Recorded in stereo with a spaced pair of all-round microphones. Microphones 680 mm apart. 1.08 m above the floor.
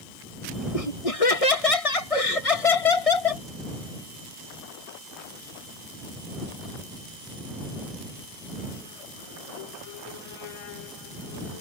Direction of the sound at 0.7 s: 55° left (ahead or behind).